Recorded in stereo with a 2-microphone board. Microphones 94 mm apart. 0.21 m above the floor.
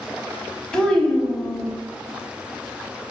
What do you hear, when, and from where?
0.7 s a child speaking: 5° left (ahead or behind), 0.8 m